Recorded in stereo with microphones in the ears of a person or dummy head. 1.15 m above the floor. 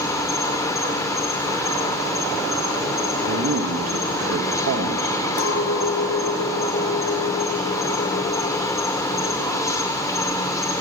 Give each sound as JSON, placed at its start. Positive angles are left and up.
{"t": 0.0, "sound": "an insect", "side_deg": 15, "distance_m": 0.8}
{"t": 3.3, "sound": "a man speaking", "side_deg": -75, "distance_m": 1.0}
{"t": 5.4, "sound": "a clink", "side_deg": 80, "distance_m": 1.2}